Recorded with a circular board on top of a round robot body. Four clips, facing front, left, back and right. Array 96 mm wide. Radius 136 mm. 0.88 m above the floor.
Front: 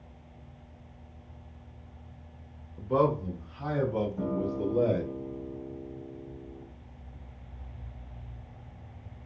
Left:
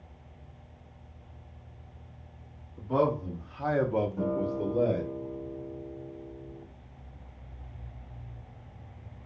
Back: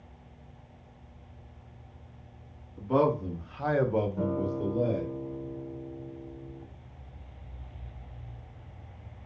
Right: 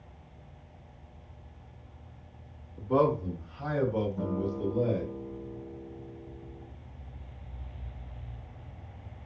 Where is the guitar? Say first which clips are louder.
Left 2 dB, back 1 dB; 155° left, 1.0 m.